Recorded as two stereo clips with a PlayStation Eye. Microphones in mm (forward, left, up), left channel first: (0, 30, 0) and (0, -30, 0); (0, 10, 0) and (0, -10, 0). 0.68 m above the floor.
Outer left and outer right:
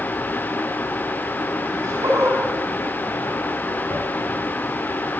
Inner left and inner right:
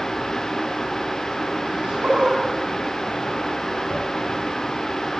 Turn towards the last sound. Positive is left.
turn(degrees=-55)  # may be behind; listen again after turning